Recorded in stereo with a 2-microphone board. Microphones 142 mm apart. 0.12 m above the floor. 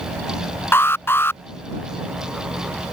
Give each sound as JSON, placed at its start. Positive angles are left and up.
{"t": 0.7, "sound": "an alarm", "side_deg": 15}